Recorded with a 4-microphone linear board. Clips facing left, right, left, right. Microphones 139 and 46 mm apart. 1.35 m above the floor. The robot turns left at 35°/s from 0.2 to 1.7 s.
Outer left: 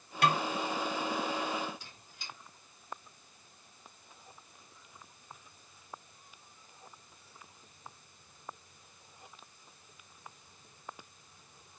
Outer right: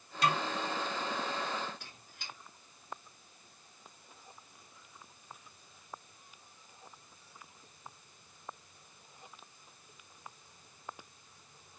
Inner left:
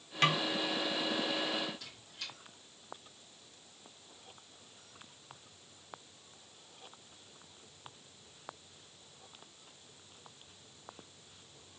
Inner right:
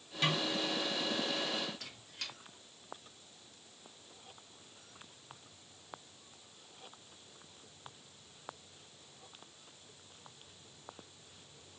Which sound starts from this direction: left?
A snare drum, at 0.2 s.